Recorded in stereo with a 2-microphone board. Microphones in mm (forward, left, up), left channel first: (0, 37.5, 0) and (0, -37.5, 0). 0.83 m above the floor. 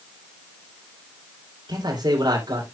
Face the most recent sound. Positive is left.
turn(degrees=-70)  # may be behind; listen again after turning